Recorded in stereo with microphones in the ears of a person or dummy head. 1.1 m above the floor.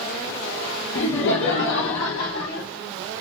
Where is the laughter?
60° left (ahead or behind), 1.0 m; by 2.7 s 50° left (ahead or behind), 1.4 m.